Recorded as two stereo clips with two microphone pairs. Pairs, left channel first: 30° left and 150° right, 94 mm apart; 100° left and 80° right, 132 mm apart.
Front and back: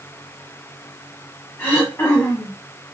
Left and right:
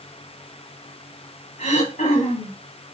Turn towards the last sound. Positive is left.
turn(degrees=95)